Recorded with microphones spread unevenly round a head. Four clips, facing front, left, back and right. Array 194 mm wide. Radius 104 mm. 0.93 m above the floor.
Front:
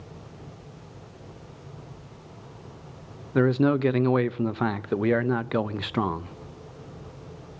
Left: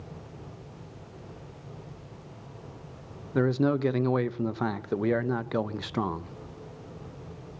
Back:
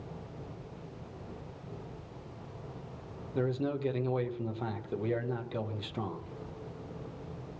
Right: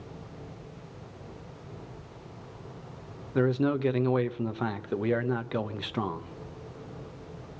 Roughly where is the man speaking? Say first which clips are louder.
Left 1 dB, front 11 dB; ahead.